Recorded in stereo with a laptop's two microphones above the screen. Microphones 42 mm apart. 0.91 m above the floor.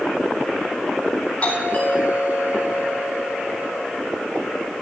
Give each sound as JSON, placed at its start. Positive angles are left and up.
{"t": 1.4, "sound": "a doorbell", "side_deg": 35, "distance_m": 4.5}